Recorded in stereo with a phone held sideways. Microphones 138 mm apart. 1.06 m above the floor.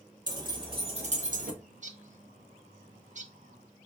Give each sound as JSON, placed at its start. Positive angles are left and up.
{"t": 0.3, "sound": "keys jangling", "side_deg": -30, "distance_m": 1.3}
{"t": 1.6, "sound": "a bird", "side_deg": -60, "distance_m": 0.6}